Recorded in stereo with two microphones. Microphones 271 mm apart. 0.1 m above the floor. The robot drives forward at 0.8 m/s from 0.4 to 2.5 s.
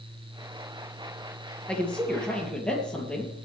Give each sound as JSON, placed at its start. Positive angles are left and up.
{"t": 1.7, "sound": "a man speaking", "side_deg": 5, "distance_m": 2.5}